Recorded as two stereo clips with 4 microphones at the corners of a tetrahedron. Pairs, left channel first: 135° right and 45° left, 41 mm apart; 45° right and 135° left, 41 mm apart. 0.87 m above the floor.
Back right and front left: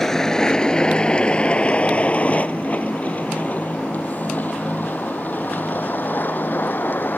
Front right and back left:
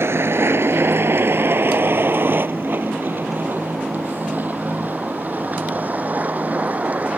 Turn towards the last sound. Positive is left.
turn(degrees=-170)